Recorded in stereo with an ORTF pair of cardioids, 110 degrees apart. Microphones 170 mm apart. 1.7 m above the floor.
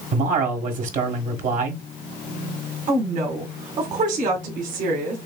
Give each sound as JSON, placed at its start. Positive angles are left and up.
{"t": 0.1, "sound": "a man speaking", "azimuth_deg": -55, "distance_m": 1.6}
{"t": 2.9, "sound": "a woman speaking", "azimuth_deg": -55, "distance_m": 1.9}